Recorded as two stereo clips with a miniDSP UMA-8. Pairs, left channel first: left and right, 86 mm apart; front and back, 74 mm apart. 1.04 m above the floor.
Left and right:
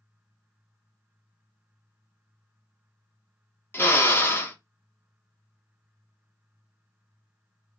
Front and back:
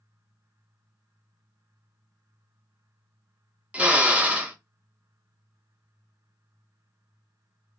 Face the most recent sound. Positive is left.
turn(degrees=125)